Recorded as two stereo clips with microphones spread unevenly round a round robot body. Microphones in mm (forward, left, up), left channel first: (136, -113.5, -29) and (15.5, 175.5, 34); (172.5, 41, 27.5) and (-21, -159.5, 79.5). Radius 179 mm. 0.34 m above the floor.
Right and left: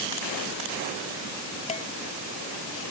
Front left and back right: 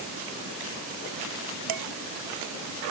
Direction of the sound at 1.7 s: 140° right.